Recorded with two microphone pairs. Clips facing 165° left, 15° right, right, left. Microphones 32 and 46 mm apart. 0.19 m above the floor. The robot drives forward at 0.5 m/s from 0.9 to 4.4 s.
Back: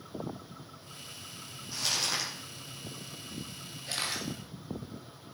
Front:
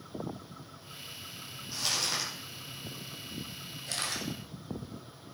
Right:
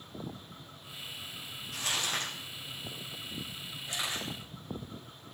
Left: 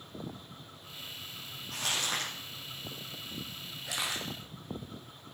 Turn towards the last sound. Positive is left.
turn(degrees=95)